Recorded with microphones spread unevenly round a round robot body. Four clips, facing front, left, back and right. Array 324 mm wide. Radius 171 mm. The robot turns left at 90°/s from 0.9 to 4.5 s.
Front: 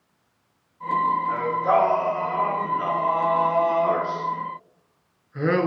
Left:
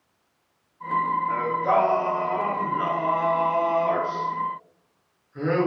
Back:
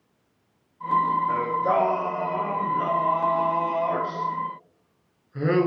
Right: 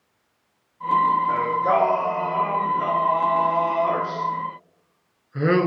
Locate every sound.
1.3 s singing: 140° right, 1.0 m; by 5.7 s 70° right, 1.0 m